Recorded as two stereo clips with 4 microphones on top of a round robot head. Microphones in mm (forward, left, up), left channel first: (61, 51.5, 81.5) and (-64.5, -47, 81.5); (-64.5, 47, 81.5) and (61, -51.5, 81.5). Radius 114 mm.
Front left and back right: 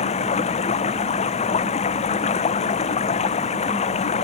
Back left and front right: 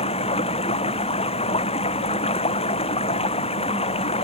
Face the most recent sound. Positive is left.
turn(degrees=90)